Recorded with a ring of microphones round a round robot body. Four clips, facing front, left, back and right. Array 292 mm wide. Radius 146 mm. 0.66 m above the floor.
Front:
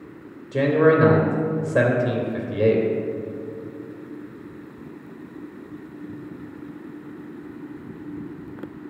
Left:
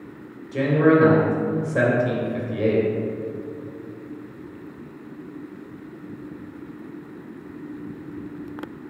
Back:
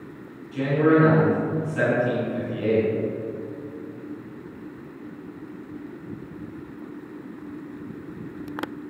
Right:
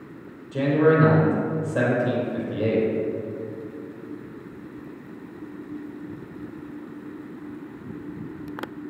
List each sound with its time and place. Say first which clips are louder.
0.5 s a man speaking: left 1 dB, front 2 dB; 5° left, 3 m